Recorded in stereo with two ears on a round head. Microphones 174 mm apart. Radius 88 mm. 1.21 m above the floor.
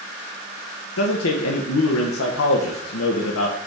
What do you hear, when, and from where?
1.0 s a man speaking: 75° left (ahead or behind), 0.9 m